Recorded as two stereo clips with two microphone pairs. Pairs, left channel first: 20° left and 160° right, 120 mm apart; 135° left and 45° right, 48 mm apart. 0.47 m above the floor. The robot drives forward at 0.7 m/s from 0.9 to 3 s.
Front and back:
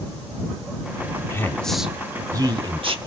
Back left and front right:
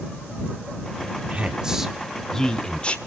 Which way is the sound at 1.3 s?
15° right.